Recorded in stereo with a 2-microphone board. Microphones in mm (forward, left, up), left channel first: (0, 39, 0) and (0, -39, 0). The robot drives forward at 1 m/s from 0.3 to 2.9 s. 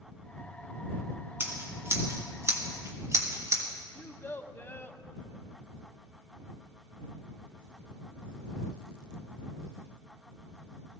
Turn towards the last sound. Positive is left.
turn(degrees=25)  # may be behind; listen again after turning